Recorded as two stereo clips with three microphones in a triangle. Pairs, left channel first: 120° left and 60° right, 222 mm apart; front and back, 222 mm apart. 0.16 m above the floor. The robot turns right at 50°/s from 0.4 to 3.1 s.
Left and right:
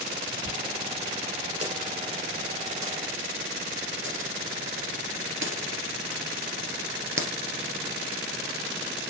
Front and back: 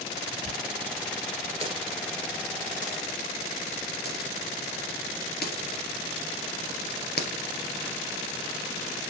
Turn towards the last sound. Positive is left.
turn(degrees=-40)